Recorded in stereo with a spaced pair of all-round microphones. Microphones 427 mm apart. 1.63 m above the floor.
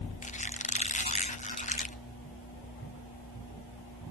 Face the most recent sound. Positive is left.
turn(degrees=15)  # may be behind; listen again after turning